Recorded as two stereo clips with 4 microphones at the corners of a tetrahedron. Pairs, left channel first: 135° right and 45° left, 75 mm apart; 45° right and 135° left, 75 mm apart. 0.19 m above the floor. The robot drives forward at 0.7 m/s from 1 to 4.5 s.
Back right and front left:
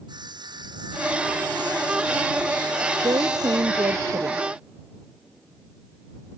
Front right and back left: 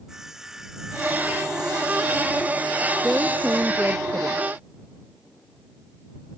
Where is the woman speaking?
60° left; by 4.4 s 70° left.